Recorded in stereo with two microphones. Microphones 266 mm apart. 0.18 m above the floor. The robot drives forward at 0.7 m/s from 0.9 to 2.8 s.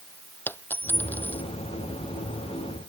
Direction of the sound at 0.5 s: 5° left (ahead or behind).